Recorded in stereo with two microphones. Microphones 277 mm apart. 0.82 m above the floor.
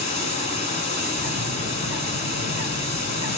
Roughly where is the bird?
Left.